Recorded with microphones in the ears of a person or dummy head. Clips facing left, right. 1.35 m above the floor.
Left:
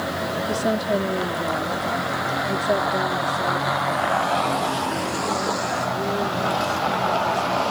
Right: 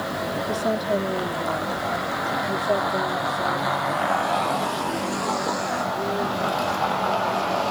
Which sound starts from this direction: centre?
A woman speaking, at 0.5 s.